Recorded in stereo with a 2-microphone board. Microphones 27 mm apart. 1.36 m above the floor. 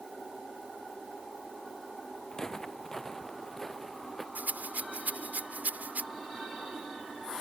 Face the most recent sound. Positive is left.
turn(degrees=-85)